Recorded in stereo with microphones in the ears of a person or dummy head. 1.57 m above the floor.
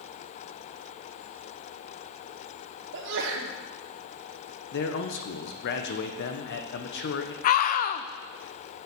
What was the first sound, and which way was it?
A sneeze, 65° right (ahead or behind).